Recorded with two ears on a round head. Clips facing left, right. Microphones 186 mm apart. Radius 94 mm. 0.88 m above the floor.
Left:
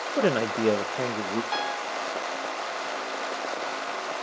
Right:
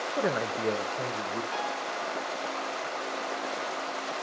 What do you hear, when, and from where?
0.2 s a man speaking: 35° left (ahead or behind), 0.5 m; by 1.4 s 50° left (ahead or behind), 0.8 m
1.5 s a piano: 55° left (ahead or behind), 1.7 m